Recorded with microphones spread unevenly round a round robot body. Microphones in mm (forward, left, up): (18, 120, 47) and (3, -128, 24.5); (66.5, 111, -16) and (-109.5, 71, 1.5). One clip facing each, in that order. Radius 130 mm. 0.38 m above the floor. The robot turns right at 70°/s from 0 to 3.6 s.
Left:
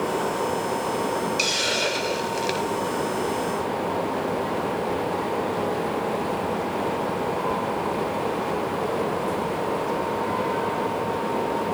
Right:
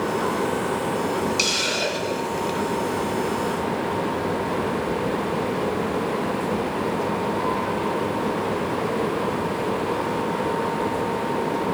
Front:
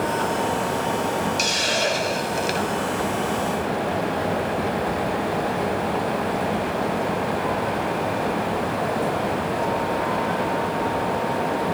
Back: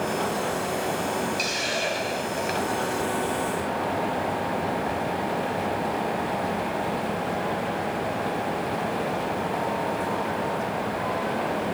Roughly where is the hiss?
Ahead right.